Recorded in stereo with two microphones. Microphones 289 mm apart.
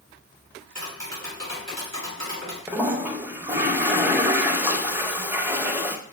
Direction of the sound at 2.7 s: 5° right (ahead or behind).